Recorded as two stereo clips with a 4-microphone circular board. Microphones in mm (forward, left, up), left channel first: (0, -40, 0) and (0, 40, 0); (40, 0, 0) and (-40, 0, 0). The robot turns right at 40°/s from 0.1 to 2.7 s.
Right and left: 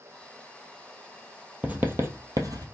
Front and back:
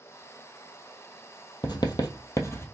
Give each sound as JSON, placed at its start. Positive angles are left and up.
{"t": 1.6, "sound": "writing", "azimuth_deg": 20, "distance_m": 1.0}